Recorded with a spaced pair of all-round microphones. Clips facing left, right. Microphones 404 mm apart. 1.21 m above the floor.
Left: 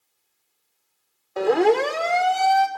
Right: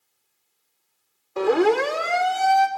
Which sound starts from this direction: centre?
A siren, at 1.4 s.